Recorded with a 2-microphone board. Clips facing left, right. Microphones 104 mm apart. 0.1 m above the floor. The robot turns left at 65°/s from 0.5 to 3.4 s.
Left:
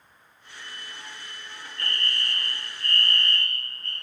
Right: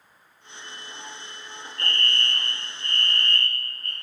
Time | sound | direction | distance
1.8 | a fire alarm | 40° left | 3 m